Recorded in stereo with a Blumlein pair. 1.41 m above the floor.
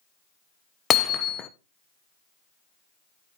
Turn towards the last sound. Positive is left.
turn(degrees=20)